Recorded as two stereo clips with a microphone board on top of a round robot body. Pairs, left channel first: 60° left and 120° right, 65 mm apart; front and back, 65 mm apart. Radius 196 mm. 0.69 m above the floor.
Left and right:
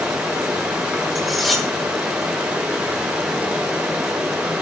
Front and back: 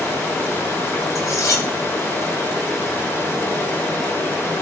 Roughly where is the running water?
Ahead right.